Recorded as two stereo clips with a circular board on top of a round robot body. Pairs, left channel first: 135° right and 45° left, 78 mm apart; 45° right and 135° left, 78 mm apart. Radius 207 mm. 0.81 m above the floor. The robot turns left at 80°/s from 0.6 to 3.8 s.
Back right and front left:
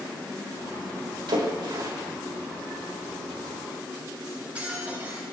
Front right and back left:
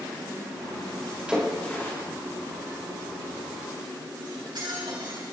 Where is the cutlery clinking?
120° left, 7.5 m.